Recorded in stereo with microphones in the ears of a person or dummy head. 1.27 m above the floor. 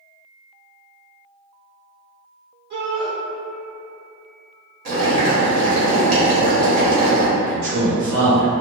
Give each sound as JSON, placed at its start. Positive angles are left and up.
{"t": 2.7, "sound": "a shout", "side_deg": -55, "distance_m": 1.3}
{"t": 4.8, "sound": "boiling", "side_deg": -50, "distance_m": 1.1}
{"t": 7.4, "sound": "a man speaking", "side_deg": -80, "distance_m": 2.0}